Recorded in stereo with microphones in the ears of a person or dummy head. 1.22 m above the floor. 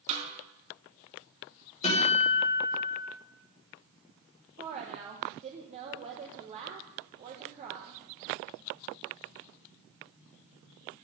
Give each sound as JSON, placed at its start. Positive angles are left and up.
{"t": 0.1, "sound": "a snare drum", "side_deg": -45, "distance_m": 5.0}
{"t": 1.8, "sound": "a guitar", "side_deg": 30, "distance_m": 5.0}
{"t": 4.6, "sound": "a woman speaking", "side_deg": -30, "distance_m": 1.2}